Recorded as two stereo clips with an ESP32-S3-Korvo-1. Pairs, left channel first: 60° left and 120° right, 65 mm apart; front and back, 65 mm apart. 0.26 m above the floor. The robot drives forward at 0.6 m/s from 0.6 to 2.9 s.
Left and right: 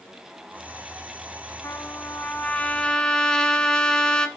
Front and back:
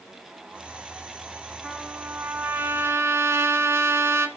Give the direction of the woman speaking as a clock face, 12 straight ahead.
No woman speaking in this recording.